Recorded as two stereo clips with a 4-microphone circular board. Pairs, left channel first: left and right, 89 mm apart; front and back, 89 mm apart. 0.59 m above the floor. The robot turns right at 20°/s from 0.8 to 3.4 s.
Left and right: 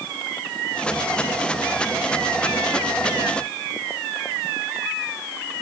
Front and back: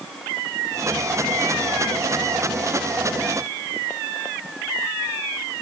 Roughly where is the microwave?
No microwave in this recording.